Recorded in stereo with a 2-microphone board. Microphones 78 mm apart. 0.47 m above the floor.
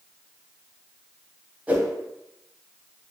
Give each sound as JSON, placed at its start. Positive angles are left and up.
{"t": 1.7, "sound": "a whoosh", "side_deg": -20, "distance_m": 0.6}